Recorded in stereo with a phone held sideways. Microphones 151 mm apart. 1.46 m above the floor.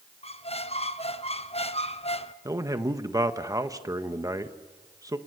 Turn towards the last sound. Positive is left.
turn(degrees=-20)  # may be behind; listen again after turning